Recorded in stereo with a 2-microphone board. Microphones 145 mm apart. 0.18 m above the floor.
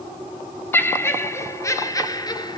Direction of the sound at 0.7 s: 15° left (ahead or behind).